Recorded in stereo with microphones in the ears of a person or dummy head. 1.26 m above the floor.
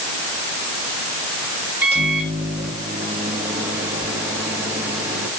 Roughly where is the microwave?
Centre.